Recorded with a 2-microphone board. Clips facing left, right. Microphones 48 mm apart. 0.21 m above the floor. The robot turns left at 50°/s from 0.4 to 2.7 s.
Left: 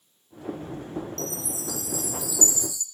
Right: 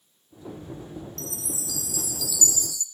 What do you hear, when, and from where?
1.2 s a chime: 105° left, 0.6 m; by 2.8 s 30° left, 0.6 m